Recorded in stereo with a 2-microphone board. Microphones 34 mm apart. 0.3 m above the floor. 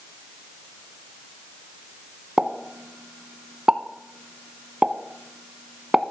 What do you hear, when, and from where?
2.4 s a pop: 35° right (ahead or behind), 0.5 m